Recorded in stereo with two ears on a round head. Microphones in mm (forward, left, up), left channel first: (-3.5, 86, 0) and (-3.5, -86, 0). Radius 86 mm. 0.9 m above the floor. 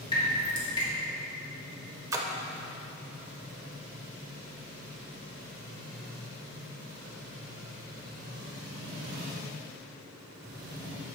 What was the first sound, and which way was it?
Dripping, 20° left (ahead or behind).